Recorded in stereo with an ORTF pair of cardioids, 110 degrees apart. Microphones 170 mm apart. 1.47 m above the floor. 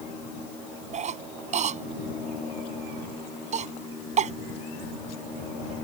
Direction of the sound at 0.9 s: 45° right.